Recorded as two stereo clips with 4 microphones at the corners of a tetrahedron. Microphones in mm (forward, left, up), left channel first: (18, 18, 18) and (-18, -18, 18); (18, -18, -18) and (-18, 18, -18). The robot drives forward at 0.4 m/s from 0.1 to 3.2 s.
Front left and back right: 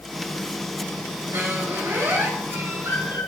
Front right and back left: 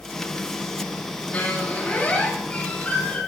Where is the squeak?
105° right, 9.5 m.